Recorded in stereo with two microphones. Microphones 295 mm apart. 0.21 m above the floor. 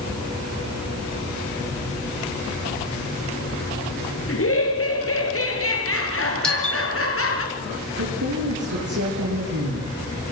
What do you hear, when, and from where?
4.3 s laughter: 50° left (ahead or behind), 5.5 m
6.4 s a doorbell: 5° left (ahead or behind), 4 m
8.0 s a woman speaking: 80° right, 6 m